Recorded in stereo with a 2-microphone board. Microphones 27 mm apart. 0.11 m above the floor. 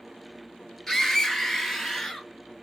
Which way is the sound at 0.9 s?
20° left (ahead or behind).